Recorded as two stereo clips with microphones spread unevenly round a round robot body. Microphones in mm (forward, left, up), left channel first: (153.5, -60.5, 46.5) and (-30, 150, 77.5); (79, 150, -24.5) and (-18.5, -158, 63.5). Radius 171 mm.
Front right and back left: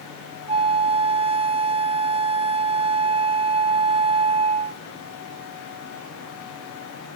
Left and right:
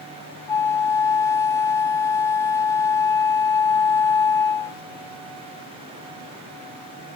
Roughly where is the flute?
Left.